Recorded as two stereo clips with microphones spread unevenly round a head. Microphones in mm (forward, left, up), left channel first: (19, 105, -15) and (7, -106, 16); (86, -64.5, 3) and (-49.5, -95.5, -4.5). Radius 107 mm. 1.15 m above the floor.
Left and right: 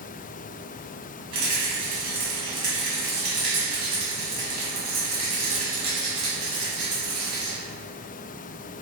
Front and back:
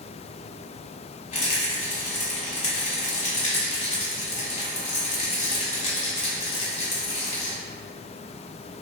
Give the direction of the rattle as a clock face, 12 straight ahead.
1 o'clock.